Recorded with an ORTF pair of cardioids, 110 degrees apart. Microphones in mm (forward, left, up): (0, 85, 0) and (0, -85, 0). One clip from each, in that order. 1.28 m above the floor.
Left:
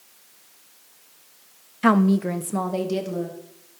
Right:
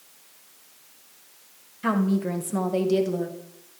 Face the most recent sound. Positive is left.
turn(degrees=-5)